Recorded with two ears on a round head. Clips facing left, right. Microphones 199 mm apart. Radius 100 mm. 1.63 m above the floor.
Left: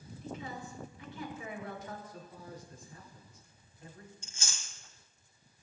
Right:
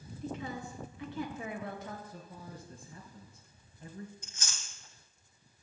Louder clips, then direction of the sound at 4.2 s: Left 1 dB; 25° left (ahead or behind).